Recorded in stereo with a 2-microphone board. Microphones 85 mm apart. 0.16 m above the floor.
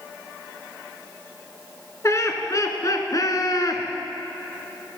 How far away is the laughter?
About 1.8 m.